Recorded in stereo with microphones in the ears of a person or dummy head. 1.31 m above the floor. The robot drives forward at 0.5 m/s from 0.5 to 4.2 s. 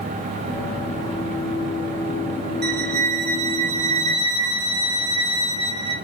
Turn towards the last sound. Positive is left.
turn(degrees=-25)  # may be behind; listen again after turning